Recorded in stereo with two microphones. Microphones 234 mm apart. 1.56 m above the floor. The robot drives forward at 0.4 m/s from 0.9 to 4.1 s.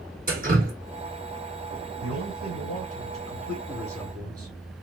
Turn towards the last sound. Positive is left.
turn(degrees=-85)